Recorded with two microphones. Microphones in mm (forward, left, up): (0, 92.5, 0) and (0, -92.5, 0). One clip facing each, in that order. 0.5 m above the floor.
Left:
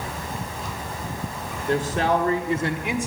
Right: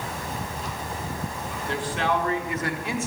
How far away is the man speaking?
About 1.3 m.